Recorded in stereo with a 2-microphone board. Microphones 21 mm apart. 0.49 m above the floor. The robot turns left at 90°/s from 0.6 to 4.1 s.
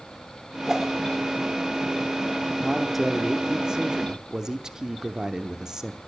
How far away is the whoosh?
About 1.4 m.